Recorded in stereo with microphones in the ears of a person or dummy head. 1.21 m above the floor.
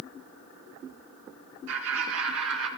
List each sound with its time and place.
1.7 s laughter: 80° right, 4 m